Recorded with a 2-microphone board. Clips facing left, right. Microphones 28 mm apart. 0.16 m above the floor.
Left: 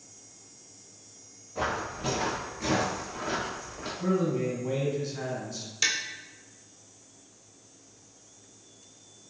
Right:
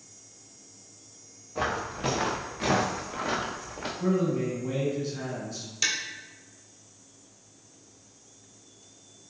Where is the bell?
I don't hear a bell.